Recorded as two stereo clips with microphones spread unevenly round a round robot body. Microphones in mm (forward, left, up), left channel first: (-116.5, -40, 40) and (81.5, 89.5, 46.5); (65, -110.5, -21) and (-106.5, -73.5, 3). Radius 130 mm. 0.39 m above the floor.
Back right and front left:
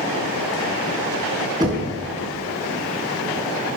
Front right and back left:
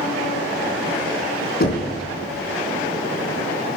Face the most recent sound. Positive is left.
turn(degrees=-40)